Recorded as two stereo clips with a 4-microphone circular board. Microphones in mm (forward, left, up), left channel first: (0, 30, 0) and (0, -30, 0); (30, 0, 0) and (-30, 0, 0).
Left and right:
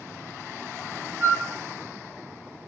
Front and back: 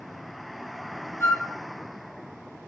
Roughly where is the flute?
Ahead right.